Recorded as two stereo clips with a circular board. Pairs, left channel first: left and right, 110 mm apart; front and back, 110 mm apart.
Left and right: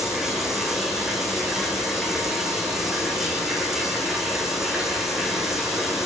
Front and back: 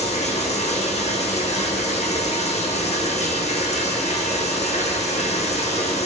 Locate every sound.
0.0 s running water: 5° right, 5 m